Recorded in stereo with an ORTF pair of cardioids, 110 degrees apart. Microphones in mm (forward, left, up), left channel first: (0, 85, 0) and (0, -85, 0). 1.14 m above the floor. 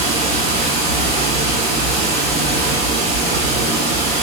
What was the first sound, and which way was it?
Running water, 65° right.